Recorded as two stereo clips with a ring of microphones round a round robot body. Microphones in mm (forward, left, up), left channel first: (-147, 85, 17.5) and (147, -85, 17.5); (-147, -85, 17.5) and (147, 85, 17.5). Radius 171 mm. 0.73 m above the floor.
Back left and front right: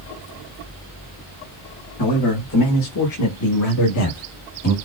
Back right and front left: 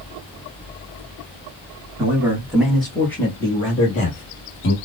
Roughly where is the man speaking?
Left.